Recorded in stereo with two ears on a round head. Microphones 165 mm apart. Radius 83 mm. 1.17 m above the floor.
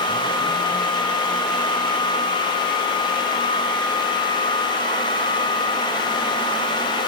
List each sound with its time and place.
Only background noise.